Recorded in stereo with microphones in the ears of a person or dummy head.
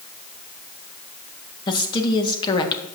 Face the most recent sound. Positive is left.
turn(degrees=20)  # may be behind; listen again after turning